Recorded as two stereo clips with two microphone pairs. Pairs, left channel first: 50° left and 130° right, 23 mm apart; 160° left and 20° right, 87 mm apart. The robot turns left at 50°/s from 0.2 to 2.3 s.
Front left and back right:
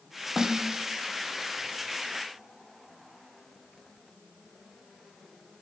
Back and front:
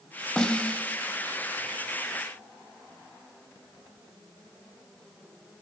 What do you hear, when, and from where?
0.4 s a snare drum: 125° right, 0.5 m; by 0.9 s 155° right, 0.5 m